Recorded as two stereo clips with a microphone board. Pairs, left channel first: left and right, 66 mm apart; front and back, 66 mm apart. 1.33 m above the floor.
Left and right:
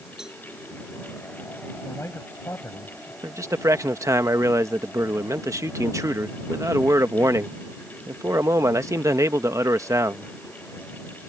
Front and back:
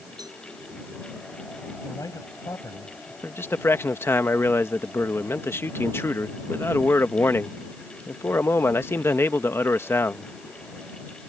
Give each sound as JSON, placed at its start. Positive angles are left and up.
{"t": 0.2, "sound": "a cowbell", "azimuth_deg": -170}
{"t": 1.8, "sound": "a man speaking", "azimuth_deg": 35}
{"t": 3.2, "sound": "a man speaking", "azimuth_deg": -50}